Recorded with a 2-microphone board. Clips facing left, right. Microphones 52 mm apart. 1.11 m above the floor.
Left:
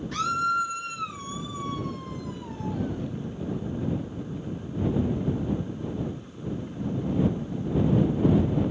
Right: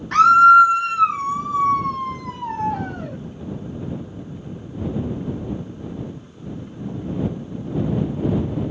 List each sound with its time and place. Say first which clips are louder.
0.1 s a scream: right 17 dB; 70° right (ahead or behind)